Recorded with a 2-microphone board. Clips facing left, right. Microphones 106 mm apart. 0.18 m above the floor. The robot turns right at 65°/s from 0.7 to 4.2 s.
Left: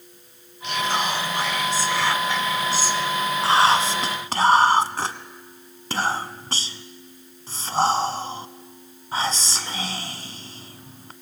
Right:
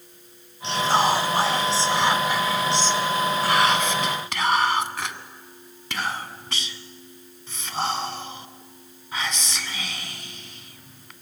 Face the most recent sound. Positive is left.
turn(degrees=35)  # may be behind; listen again after turning